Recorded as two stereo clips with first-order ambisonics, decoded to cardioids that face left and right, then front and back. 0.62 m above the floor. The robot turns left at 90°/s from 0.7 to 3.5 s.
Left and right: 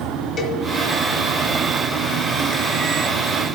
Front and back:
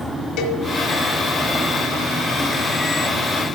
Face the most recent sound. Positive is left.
turn(degrees=135)